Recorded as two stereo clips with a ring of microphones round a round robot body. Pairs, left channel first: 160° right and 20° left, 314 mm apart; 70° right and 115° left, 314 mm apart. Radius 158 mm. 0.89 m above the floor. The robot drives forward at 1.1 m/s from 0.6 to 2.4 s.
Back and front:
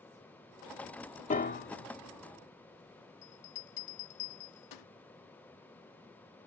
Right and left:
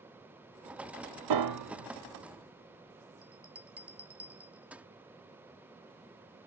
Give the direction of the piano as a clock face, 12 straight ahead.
8 o'clock.